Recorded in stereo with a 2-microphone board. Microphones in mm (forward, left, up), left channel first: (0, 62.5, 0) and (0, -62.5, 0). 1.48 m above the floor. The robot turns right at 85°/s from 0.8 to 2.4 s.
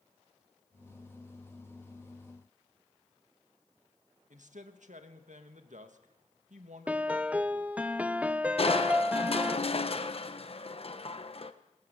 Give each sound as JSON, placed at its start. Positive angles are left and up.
{"t": 4.3, "sound": "a man speaking", "side_deg": -75, "distance_m": 1.9}
{"t": 6.9, "sound": "a piano", "side_deg": -10, "distance_m": 0.7}
{"t": 8.6, "sound": "crushing", "side_deg": 50, "distance_m": 1.2}